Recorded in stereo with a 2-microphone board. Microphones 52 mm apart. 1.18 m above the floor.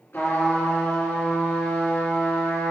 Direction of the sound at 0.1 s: 40° left (ahead or behind).